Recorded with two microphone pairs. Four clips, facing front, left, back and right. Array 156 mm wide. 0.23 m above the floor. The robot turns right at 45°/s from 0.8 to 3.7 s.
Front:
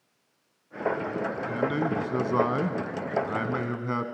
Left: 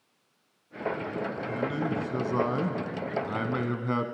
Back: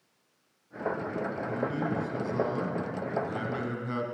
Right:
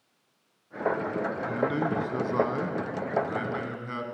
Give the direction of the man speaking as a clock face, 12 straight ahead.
2 o'clock.